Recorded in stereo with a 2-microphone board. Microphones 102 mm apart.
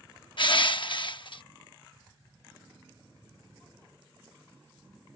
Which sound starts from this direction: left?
Crushing, at 0.4 s.